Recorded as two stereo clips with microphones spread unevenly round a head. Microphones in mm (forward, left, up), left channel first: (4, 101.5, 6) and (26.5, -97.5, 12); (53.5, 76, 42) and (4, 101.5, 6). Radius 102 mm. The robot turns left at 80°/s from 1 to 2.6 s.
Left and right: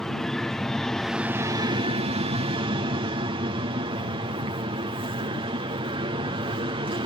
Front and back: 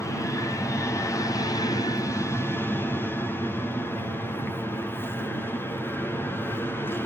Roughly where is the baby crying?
I don't hear a baby crying.